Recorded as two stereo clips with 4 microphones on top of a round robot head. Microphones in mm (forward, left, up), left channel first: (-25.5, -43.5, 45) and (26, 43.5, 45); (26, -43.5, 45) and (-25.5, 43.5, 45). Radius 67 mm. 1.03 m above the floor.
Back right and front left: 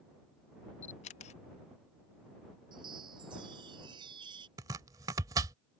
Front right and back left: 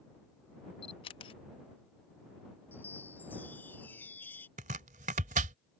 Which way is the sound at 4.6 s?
115° left.